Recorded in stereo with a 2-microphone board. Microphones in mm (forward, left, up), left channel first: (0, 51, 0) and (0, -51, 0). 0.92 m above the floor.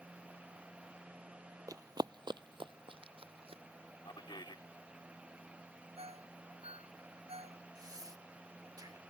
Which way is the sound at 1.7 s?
35° right (ahead or behind).